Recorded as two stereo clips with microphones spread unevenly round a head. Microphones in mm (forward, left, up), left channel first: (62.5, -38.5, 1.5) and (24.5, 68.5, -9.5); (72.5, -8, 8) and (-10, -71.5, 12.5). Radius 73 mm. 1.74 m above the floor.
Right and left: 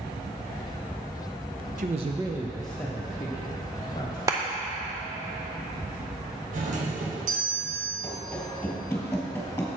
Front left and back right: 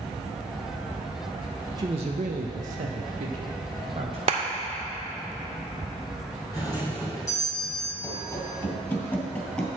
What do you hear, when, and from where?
1.8 s a man speaking: 150° left, 0.6 m; by 4.2 s 120° right, 1.3 m
4.3 s a clap: straight behind, 0.5 m
6.5 s a doorbell: 105° left, 1.4 m
8.0 s running footsteps: 5° right, 2 m; by 9.7 s 35° right, 1.9 m